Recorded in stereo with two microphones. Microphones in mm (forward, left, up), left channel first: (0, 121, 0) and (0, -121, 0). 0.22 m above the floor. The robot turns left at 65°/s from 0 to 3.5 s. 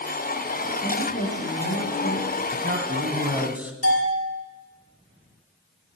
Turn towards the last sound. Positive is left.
turn(degrees=75)  # may be behind; listen again after turning